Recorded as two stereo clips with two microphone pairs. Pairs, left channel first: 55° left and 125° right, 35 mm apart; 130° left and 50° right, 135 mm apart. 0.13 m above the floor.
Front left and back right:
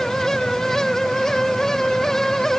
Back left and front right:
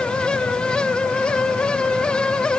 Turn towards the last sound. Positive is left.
No sound to turn to.